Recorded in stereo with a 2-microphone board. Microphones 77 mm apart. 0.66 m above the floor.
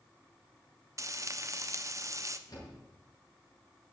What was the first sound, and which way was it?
Frying, 40° right (ahead or behind).